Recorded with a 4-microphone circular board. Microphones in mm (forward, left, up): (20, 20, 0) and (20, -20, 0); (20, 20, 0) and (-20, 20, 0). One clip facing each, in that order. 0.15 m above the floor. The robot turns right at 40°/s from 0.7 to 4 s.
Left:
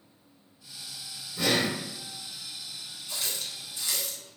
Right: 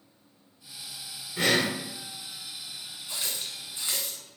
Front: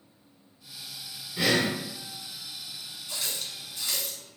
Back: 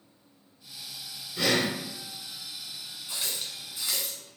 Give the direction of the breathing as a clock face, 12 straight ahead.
3 o'clock.